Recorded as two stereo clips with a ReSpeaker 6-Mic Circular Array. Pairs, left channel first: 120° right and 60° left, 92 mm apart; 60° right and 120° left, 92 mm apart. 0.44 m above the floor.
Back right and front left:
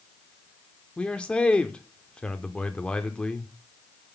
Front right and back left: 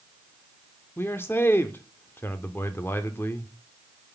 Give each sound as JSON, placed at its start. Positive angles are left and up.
{"t": 1.0, "sound": "a man speaking", "azimuth_deg": -60, "distance_m": 0.7}